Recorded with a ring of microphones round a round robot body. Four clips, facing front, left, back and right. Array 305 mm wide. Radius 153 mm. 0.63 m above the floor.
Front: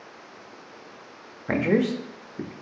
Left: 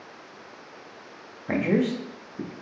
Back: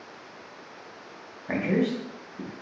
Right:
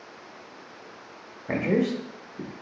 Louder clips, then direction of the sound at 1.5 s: Left 1 dB, front 3 dB; 5° left.